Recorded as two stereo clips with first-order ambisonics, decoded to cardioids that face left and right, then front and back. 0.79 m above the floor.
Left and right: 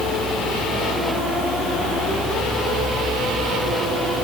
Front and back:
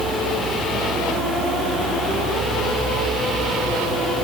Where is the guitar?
I don't hear a guitar.